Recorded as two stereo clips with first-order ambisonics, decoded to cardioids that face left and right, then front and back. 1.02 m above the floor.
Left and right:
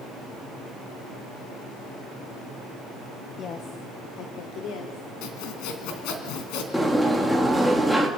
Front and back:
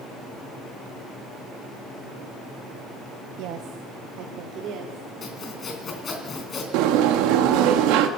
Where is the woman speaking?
155° left, 1.0 m; by 5.1 s 125° left, 2.5 m.